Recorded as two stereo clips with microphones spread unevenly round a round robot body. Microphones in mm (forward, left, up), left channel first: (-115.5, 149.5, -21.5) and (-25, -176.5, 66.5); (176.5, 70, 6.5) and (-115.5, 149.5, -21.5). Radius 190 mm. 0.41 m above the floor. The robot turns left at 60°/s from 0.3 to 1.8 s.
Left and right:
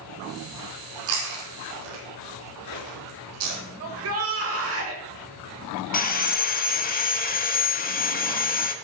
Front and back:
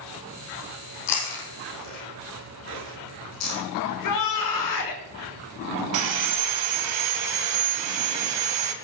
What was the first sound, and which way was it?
Chewing, 20° right.